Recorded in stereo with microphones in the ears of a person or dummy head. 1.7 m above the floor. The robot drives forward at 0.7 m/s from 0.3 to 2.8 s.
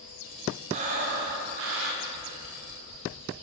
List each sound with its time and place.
0.7 s breathing: 40° right (ahead or behind), 0.9 m; by 2.5 s 35° right (ahead or behind), 1.0 m